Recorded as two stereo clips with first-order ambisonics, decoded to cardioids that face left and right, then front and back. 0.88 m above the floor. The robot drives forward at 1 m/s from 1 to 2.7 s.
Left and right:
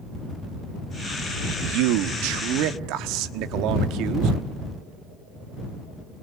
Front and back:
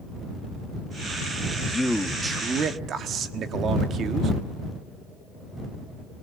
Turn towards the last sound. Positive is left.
turn(degrees=-120)